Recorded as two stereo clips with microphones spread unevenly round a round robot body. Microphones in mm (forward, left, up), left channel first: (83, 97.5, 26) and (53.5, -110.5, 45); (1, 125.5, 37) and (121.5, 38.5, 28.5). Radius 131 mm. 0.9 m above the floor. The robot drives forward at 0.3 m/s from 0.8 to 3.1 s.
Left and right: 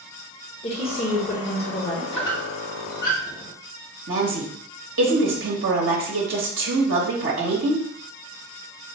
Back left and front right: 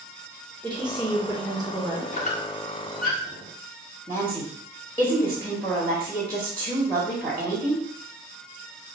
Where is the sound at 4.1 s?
135° right, 0.9 m.